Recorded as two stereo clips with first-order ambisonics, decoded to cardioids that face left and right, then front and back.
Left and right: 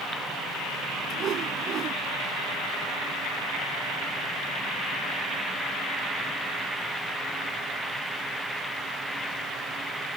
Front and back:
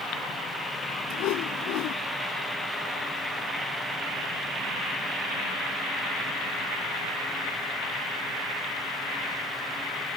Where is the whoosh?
35° right.